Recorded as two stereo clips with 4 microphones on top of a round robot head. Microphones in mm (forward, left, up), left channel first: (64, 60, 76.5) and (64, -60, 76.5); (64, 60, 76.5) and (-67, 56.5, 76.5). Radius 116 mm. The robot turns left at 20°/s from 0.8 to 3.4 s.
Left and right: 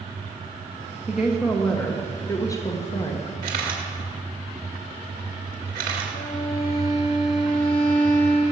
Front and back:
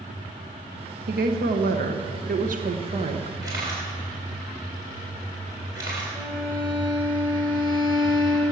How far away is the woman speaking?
About 1.2 m.